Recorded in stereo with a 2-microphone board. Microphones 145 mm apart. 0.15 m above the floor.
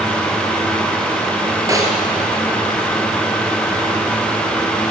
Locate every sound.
1.7 s a snare drum: 25° right (ahead or behind), 1.9 m